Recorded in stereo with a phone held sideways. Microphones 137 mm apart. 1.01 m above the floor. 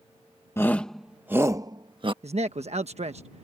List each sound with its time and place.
0.6 s a shout: 20° left (ahead or behind); by 2.1 s 40° right (ahead or behind)
2.2 s a man speaking: 55° right (ahead or behind)